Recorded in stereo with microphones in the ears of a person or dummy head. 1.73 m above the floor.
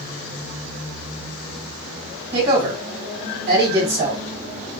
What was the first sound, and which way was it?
A woman speaking, 40° right (ahead or behind).